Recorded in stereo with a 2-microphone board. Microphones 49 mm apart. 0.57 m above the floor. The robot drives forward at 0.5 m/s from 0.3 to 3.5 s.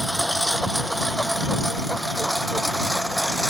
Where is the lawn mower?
Centre (ahead or behind).